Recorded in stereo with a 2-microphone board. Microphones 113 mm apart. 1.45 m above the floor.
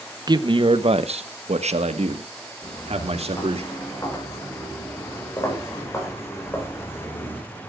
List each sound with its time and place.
0.3 s a man speaking: 40° right (ahead or behind), 1.0 m; by 3.6 s 65° right (ahead or behind), 2.5 m
2.6 s footsteps: 35° left (ahead or behind), 9.5 m; by 7.4 s 20° left (ahead or behind), 5.5 m